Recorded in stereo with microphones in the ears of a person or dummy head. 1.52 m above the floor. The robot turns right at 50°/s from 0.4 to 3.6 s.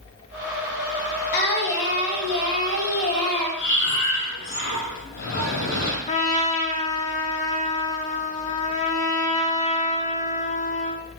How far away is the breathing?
About 2.5 m.